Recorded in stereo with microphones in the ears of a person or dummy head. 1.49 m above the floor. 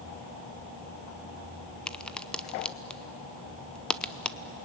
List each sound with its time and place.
1.9 s a crack: 10° left (ahead or behind), 0.6 m